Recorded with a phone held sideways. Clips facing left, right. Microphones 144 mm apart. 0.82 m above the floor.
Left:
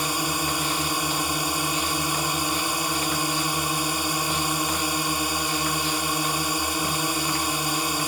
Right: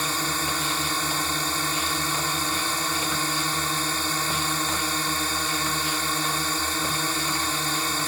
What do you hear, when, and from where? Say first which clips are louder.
0.0 s a drone: left 2 dB; 15° left (ahead or behind)